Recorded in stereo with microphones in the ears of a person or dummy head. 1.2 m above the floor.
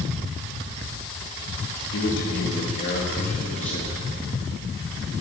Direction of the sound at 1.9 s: 65° left (ahead or behind).